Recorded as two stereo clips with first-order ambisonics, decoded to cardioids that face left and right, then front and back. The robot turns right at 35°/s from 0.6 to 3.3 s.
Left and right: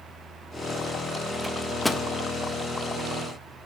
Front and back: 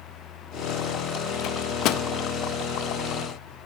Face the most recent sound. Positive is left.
turn(degrees=60)